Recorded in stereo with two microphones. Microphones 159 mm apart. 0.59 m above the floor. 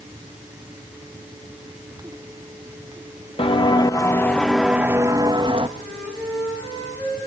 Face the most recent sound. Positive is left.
turn(degrees=15)  # may be behind; listen again after turning